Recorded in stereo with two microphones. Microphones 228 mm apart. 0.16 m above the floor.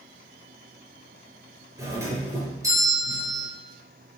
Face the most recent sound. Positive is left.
turn(degrees=-15)  # may be behind; listen again after turning